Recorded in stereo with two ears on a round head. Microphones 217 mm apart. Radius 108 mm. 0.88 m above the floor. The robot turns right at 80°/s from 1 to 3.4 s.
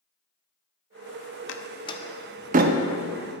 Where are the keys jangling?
I don't hear keys jangling.